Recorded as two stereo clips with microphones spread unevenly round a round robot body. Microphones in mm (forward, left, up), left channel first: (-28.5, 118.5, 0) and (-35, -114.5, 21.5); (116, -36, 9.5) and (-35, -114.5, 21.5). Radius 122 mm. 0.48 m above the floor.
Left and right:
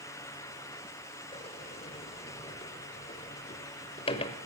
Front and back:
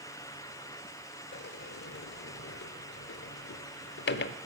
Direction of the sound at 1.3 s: 20° left.